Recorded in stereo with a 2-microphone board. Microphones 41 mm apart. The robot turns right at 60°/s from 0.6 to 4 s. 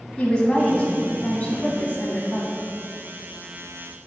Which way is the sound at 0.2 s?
35° left.